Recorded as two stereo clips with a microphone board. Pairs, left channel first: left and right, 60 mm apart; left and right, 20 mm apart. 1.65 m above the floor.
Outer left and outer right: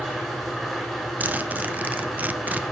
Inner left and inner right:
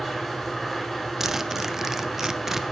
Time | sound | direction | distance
0.0 | an engine running | 5° left (ahead or behind) | 7.5 m
1.2 | a zipper | 30° right (ahead or behind) | 0.8 m